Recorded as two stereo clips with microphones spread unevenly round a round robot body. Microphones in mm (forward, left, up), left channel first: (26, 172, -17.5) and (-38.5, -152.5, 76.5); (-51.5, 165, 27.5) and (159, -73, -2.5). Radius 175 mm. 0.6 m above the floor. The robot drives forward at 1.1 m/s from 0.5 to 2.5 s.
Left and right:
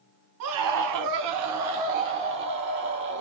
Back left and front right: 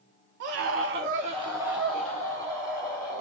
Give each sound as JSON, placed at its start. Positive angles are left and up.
{"t": 0.4, "sound": "a scream", "azimuth_deg": -70, "distance_m": 1.1}